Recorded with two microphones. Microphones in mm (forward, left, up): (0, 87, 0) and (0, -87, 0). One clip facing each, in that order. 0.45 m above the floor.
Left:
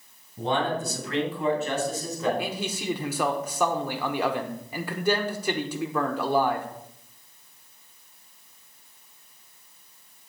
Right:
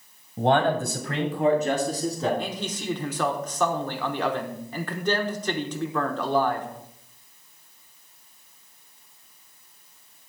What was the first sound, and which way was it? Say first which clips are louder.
A man speaking: right 5 dB; 65° right (ahead or behind).